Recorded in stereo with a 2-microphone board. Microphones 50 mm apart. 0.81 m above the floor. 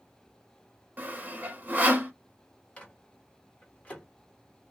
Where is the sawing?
35° right (ahead or behind), 0.7 m.